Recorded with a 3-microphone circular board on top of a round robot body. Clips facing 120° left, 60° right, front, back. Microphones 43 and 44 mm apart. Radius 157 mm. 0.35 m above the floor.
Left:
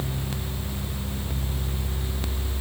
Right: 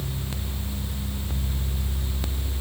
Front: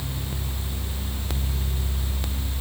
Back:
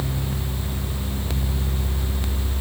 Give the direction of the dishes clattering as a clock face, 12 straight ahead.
No dishes clattering in this recording.